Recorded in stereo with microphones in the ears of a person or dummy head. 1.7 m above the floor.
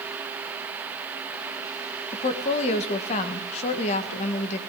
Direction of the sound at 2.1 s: 35° left (ahead or behind).